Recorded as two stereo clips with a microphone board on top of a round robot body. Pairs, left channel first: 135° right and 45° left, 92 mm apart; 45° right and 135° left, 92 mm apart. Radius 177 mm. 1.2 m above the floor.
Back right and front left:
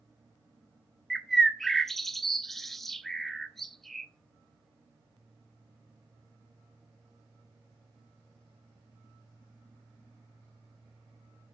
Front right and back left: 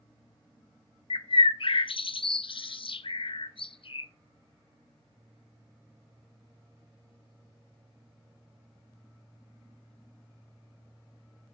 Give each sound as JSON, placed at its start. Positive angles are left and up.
{"t": 1.1, "sound": "a bird", "azimuth_deg": -45, "distance_m": 0.7}